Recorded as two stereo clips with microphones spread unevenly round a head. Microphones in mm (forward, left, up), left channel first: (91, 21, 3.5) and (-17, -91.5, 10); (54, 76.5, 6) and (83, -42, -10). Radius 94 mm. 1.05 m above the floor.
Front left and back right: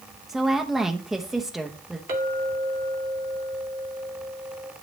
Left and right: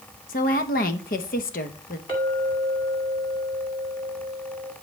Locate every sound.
0.3 s a woman speaking: 135° left, 0.9 m
2.1 s a clink: 170° left, 2.0 m